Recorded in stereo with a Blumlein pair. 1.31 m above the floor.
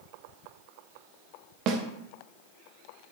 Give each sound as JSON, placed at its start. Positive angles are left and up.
{"t": 1.7, "sound": "a snare drum", "azimuth_deg": -35, "distance_m": 1.6}